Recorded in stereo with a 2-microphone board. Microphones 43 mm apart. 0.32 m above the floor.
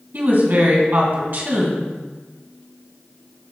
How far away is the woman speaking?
About 2.5 m.